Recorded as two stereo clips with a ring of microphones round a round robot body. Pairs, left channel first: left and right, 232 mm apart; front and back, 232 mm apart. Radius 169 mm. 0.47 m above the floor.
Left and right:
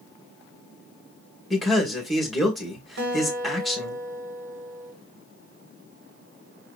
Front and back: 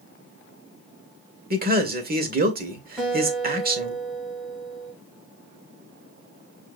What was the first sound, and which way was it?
A man speaking, straight behind.